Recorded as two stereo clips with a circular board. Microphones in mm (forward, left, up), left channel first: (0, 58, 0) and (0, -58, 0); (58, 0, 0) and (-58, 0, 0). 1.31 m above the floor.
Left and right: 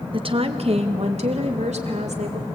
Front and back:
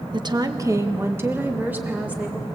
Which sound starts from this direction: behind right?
A woman speaking, at 0.1 s.